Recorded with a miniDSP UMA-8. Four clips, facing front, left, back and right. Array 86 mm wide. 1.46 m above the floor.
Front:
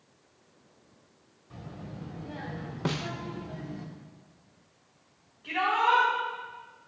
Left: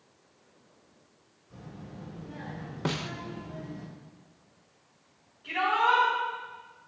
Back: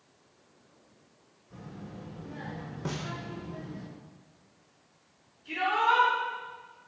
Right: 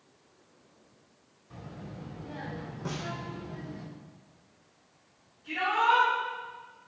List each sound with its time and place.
1.5 s a child speaking: 35° right, 4 m; by 3.9 s 5° right, 5 m
2.9 s a snare drum: 55° left, 0.7 m
5.4 s a shout: 35° left, 5 m